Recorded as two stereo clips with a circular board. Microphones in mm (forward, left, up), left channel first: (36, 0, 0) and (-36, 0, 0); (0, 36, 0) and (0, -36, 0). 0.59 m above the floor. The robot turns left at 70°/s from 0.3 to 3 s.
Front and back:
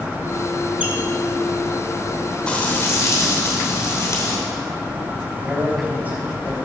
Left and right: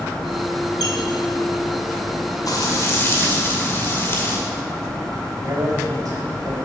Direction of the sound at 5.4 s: 115° right.